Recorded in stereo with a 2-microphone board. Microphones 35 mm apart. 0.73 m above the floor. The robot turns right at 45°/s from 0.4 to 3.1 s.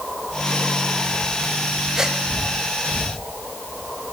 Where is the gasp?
10° right (ahead or behind), 1.7 m; by 2.2 s 20° right (ahead or behind), 1.7 m.